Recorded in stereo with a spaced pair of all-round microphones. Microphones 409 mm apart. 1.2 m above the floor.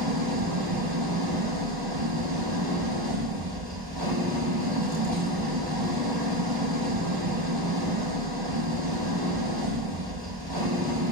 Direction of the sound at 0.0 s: 70° right (ahead or behind).